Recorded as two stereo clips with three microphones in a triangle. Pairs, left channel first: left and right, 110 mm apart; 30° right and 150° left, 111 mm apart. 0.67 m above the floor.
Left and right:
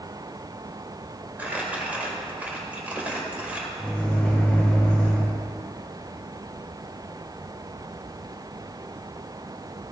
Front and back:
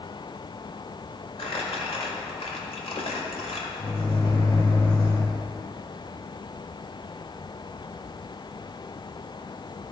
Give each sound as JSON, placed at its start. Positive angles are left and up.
{"t": 1.4, "sound": "crumpling", "azimuth_deg": -15, "distance_m": 1.8}
{"t": 3.8, "sound": "a microwave", "azimuth_deg": 10, "distance_m": 1.9}